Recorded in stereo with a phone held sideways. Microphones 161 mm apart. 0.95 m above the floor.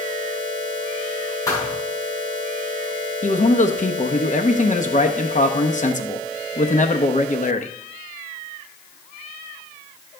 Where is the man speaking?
50° left (ahead or behind), 0.9 m.